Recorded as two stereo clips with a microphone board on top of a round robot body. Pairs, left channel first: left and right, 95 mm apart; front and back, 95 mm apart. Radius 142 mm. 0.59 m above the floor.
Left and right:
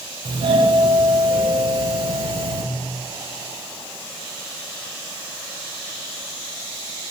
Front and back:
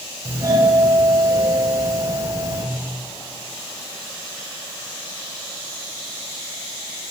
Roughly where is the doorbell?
Behind right.